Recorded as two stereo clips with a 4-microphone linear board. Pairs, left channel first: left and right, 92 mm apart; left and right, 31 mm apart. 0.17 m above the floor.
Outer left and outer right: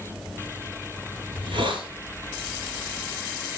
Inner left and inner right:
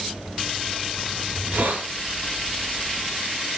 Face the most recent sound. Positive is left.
turn(degrees=-60)  # may be behind; listen again after turning